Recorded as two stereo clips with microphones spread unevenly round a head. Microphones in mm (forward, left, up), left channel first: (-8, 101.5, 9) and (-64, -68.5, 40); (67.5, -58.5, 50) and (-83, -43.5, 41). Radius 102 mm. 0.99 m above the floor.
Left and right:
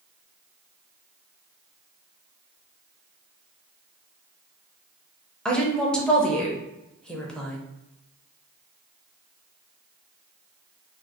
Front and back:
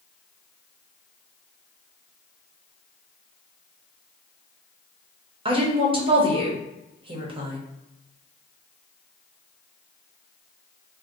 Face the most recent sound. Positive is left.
turn(degrees=145)